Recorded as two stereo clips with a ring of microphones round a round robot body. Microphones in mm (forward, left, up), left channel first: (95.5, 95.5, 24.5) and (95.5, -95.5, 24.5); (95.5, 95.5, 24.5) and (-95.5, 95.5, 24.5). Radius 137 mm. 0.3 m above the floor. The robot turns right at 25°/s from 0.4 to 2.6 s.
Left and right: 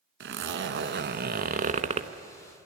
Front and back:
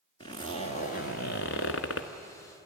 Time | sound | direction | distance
0.2 | a zipper | 75° right | 1.1 m